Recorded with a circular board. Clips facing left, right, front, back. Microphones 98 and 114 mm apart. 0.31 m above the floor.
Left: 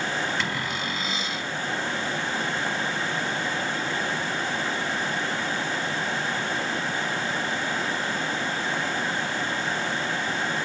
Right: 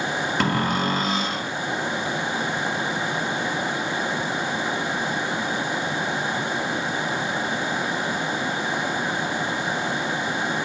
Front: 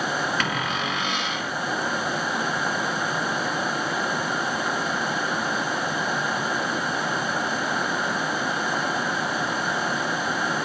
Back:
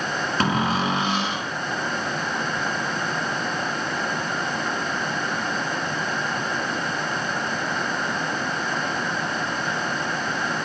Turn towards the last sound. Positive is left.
turn(degrees=-125)